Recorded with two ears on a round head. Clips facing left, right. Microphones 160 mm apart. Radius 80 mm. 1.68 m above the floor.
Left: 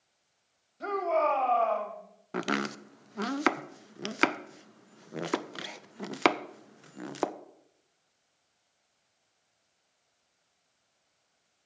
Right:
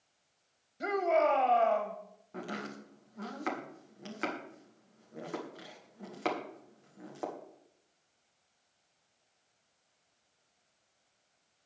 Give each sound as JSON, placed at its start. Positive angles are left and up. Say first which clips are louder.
{"t": 0.8, "sound": "a shout", "louder": "even", "side_deg": -20, "distance_m": 1.6}
{"t": 2.3, "sound": "chopping", "louder": "left 9 dB", "side_deg": 80, "distance_m": 0.6}